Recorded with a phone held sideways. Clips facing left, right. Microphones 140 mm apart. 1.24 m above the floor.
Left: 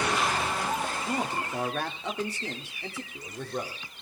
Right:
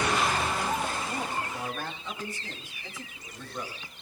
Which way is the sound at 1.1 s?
80° left.